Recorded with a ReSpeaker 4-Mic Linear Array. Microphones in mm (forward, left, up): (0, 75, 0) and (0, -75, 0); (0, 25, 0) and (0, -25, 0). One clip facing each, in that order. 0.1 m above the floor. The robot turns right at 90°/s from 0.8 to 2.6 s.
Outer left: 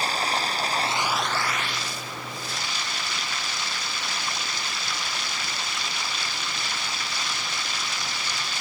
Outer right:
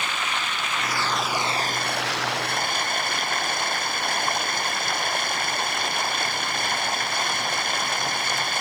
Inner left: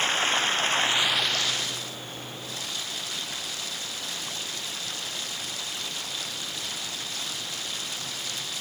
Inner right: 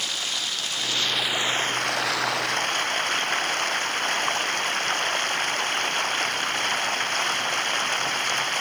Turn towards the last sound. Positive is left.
turn(degrees=-55)